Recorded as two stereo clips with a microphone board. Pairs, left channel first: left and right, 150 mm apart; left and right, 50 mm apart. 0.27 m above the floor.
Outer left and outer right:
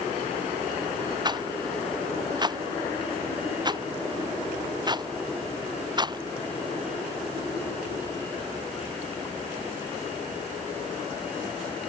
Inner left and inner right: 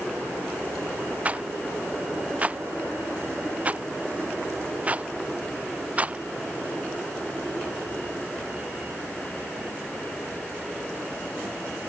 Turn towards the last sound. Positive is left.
turn(degrees=-30)  # may be behind; listen again after turning